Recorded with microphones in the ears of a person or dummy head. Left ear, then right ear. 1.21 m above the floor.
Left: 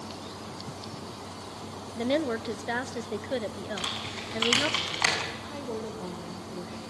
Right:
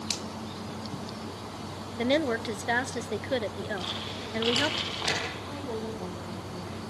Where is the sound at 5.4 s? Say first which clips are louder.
Even; 10° left (ahead or behind), 3.5 m.